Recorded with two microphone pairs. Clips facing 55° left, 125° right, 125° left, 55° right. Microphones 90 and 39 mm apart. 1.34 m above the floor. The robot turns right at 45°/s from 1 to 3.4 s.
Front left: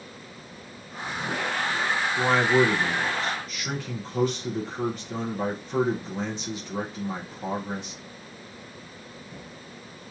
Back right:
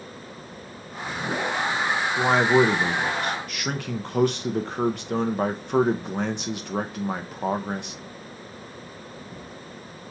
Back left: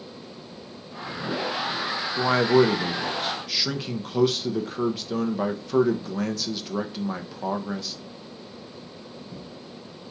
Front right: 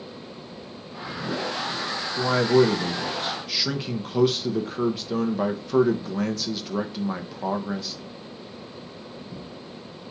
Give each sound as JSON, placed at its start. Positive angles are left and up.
{"t": 2.2, "sound": "a man speaking", "azimuth_deg": 165, "distance_m": 0.6}